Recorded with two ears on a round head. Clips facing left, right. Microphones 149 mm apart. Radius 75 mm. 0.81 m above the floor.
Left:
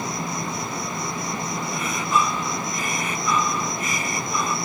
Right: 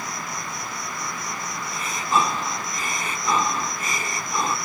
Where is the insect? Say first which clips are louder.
Left 5 dB; 85° left.